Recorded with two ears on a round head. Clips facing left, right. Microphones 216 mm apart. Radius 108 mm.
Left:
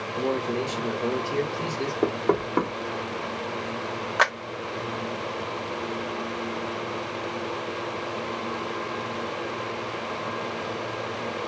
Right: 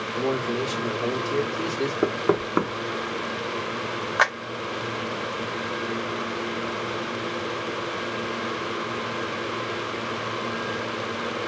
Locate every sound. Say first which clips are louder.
0.2 s a man speaking: right 1 dB; 30° right (ahead or behind), 1.6 m
2.0 s knocking: even; 20° right (ahead or behind), 0.9 m
4.2 s a clap: left 1 dB; 5° right (ahead or behind), 0.8 m